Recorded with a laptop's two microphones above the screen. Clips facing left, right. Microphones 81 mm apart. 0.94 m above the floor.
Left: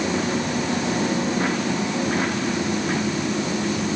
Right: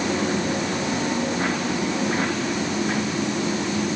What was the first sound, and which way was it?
Only background noise.